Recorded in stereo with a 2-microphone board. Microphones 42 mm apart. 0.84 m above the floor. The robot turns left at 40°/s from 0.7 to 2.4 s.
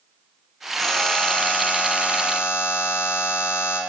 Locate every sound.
0.8 s a buzzer: 170° left, 2.5 m; by 3.8 s 105° left, 2.5 m